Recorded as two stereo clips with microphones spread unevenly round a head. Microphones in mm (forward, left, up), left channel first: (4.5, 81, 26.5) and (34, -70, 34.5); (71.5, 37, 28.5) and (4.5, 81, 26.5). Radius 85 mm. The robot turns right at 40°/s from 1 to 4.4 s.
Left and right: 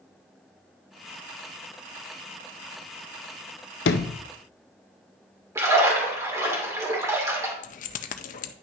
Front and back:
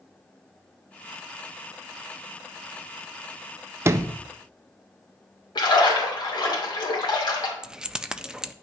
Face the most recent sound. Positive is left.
turn(degrees=65)